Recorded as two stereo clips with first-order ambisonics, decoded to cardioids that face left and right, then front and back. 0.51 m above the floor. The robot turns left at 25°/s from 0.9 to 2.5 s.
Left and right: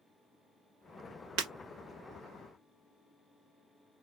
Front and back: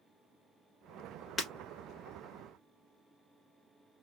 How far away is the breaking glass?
About 1.5 m.